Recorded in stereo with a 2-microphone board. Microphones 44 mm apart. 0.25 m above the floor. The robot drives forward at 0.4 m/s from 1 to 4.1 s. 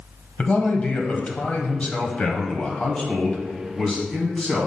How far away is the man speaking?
About 1.0 m.